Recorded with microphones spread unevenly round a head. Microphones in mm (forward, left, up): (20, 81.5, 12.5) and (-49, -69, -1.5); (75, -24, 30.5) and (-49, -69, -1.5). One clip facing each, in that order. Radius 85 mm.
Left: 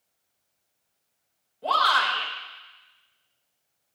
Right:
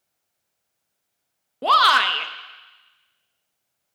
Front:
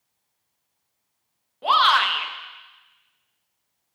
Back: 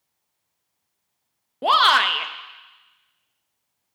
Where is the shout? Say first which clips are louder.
Right 5 dB, back 1 dB; 125° right, 1.2 m.